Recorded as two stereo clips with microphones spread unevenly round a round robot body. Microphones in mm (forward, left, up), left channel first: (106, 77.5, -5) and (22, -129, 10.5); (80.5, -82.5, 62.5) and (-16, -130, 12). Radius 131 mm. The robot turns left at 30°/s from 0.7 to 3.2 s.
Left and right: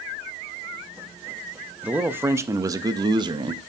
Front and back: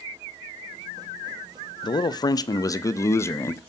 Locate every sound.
1.8 s a man speaking: 30° right, 0.5 m; by 3.6 s 70° right, 0.5 m